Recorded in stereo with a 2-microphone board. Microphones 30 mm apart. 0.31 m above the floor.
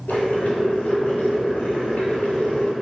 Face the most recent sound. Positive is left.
turn(degrees=85)